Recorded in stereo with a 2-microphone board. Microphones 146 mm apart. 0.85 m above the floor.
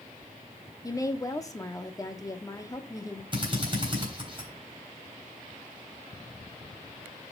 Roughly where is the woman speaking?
Left.